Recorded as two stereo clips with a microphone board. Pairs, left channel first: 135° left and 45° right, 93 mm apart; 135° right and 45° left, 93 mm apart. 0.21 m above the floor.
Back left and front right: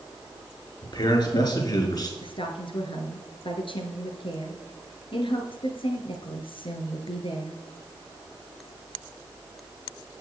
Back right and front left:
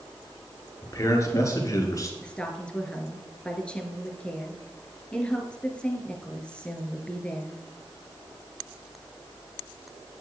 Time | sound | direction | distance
0.8 | a man speaking | 170° left | 4.5 m
2.2 | a woman speaking | 145° left | 3 m